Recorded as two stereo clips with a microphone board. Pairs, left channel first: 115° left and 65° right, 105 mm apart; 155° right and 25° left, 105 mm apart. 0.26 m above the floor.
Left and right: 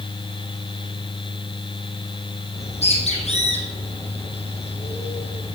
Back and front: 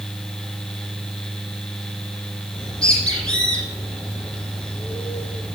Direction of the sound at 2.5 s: 120° left.